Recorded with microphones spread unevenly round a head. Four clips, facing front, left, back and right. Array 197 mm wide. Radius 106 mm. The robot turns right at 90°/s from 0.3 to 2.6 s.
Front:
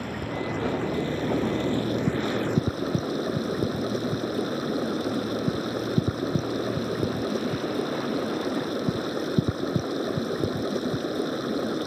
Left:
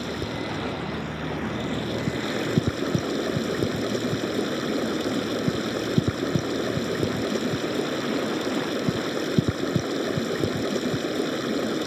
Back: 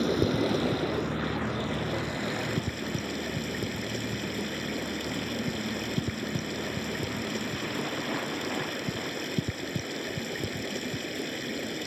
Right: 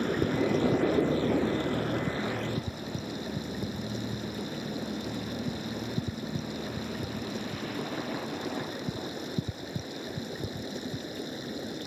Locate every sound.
0.0 s running water: 145° right; by 11.9 s 65° left